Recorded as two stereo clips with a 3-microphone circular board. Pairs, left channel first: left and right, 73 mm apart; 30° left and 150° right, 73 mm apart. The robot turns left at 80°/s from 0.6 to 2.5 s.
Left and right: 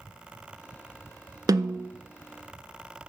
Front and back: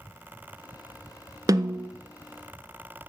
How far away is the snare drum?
About 0.6 m.